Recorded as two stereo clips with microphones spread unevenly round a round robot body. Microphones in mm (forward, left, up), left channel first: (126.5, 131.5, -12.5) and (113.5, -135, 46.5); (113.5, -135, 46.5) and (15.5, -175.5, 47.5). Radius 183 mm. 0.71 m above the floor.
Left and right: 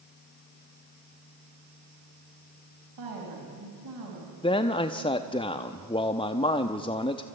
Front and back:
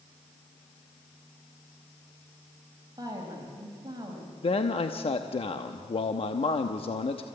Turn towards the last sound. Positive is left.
turn(degrees=30)